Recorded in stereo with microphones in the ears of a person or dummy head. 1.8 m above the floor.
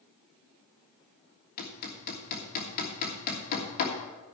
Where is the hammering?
50° left (ahead or behind), 1.5 m.